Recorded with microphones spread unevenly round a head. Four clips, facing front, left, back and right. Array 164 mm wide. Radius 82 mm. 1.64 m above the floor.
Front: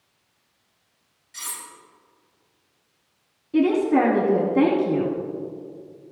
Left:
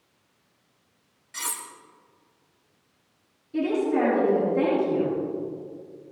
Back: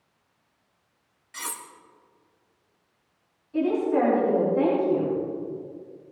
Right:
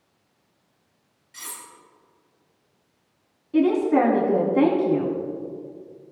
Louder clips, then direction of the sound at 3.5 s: Right 5 dB, front 4 dB; 30° right.